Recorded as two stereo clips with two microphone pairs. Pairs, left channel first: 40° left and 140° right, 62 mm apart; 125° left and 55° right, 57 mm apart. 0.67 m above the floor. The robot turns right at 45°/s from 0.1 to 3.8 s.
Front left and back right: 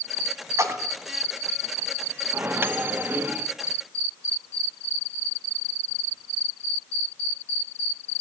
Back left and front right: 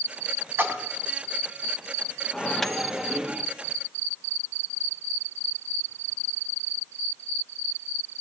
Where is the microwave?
165° right, 0.7 m; by 3.5 s 115° right, 0.7 m.